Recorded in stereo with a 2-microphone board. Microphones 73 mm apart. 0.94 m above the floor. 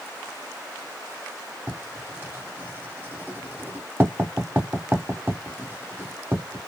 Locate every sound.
1.7 s writing: 25° right (ahead or behind), 0.8 m